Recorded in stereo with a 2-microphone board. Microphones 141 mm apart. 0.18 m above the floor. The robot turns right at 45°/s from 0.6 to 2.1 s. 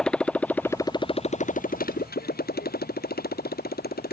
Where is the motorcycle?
5° left (ahead or behind); by 4.1 s 90° left.